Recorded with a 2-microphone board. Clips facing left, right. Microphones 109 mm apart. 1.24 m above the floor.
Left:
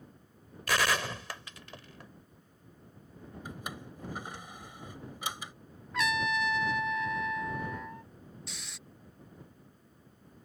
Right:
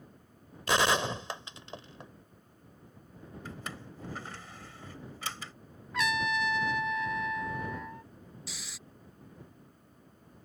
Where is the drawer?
15° left (ahead or behind).